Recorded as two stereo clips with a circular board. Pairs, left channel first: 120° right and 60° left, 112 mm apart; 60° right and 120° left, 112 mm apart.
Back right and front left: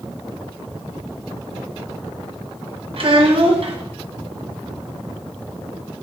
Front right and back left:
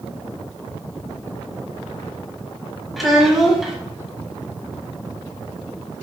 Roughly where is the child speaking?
Ahead left.